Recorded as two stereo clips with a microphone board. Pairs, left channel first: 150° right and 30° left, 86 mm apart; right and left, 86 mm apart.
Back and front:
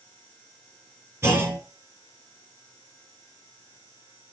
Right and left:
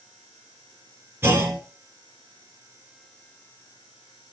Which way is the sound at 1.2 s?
55° left.